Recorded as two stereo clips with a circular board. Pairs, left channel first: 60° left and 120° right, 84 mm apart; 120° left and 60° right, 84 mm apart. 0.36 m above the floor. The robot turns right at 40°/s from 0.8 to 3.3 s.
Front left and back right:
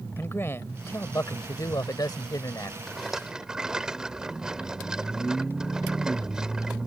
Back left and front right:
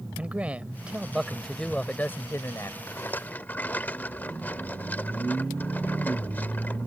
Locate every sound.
0.2 s a man speaking: 10° left; by 2.8 s 85° left
2.9 s a rattle: 150° left; by 6.9 s 165° left